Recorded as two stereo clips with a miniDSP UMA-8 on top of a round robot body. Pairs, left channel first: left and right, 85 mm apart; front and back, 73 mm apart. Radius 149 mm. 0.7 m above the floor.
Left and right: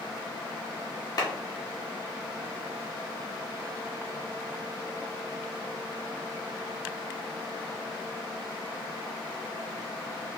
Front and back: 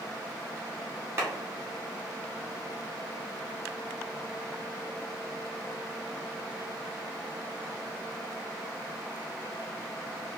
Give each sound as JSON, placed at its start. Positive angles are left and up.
{"t": 1.2, "sound": "a clap", "azimuth_deg": 125, "distance_m": 1.5}